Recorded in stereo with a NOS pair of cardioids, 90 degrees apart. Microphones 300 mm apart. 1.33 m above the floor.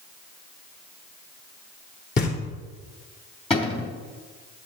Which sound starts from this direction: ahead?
A cupboard door, at 3.5 s.